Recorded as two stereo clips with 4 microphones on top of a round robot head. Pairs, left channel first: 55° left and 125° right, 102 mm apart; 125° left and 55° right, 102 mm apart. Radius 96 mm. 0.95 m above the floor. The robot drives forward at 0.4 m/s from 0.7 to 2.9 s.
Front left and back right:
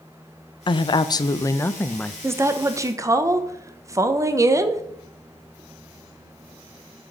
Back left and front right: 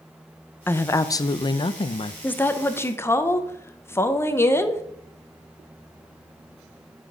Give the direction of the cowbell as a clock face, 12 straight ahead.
No cowbell in this recording.